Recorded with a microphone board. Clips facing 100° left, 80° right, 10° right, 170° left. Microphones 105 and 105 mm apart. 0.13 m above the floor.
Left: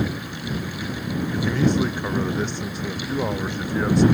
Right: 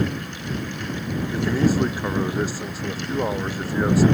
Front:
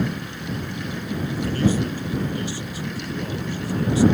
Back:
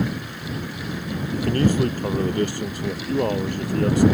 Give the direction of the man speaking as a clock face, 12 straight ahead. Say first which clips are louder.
Right 1 dB, back 2 dB; 5 o'clock.